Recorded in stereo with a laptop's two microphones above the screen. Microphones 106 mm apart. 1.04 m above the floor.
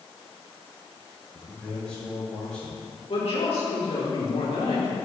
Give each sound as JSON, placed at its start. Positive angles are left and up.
{"t": 1.3, "sound": "a man speaking", "side_deg": 5, "distance_m": 2.5}
{"t": 3.1, "sound": "a woman speaking", "side_deg": 65, "distance_m": 2.5}